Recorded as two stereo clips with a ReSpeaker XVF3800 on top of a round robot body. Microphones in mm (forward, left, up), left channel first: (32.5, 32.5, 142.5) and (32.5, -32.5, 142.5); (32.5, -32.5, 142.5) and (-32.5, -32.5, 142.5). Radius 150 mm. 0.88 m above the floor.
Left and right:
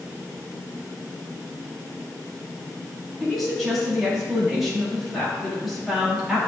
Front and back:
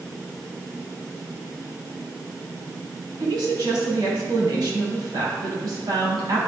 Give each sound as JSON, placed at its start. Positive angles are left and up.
{"t": 3.2, "sound": "a woman speaking", "azimuth_deg": -175, "distance_m": 2.5}